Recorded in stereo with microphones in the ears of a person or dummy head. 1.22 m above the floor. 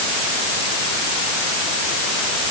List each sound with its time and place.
Only background noise.